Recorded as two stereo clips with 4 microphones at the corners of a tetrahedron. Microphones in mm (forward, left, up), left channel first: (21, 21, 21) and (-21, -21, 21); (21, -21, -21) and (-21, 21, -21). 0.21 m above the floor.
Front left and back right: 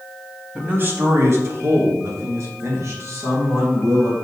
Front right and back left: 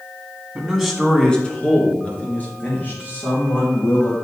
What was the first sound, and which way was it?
A man speaking, 170° right.